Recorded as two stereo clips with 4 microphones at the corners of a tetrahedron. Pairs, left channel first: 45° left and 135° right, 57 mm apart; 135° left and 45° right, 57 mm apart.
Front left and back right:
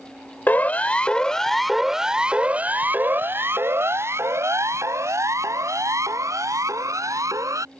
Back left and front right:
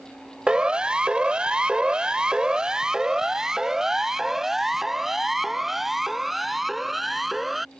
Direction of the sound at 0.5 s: 20° left.